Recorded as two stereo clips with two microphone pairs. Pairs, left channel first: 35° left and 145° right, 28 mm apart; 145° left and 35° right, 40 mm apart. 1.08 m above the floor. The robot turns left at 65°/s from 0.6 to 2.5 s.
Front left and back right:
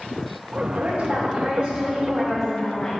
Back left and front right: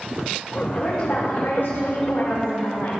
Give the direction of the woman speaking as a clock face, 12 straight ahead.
4 o'clock.